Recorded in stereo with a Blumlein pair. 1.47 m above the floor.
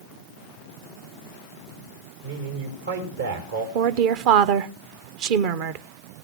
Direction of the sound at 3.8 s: 45° right.